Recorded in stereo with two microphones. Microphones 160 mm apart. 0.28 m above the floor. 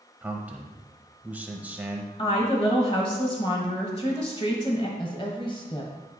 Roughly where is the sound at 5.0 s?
Left.